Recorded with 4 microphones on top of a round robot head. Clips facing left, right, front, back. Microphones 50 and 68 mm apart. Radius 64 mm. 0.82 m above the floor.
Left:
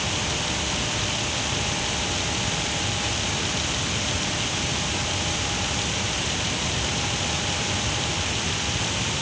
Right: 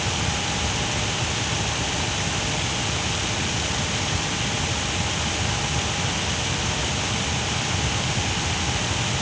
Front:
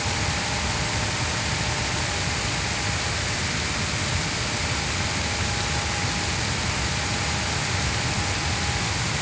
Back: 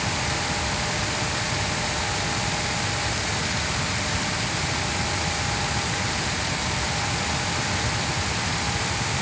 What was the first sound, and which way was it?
Only background noise.